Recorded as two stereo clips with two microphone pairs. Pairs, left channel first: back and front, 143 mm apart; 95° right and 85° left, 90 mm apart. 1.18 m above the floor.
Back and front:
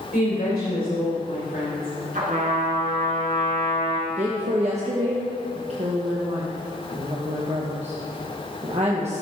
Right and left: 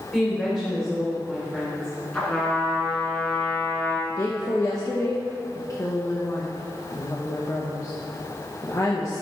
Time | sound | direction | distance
0.1 | a woman speaking | 175° right | 3 m
2.1 | a trumpet | 20° right | 3 m
4.1 | a woman speaking | 40° right | 1.1 m